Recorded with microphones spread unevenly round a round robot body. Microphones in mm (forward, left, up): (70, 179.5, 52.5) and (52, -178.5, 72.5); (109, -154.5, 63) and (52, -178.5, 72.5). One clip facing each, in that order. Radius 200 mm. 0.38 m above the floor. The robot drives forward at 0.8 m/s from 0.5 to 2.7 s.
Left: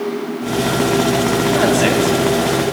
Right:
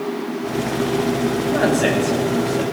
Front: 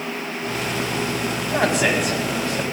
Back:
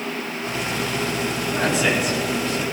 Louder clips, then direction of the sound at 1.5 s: Left 2 dB, front 2 dB; 20° left.